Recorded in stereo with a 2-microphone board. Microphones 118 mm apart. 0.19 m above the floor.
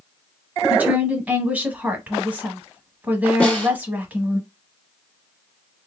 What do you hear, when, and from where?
0.7 s a woman speaking: 15° right (ahead or behind), 1.0 m
3.4 s a snare drum: 10° left (ahead or behind), 1.7 m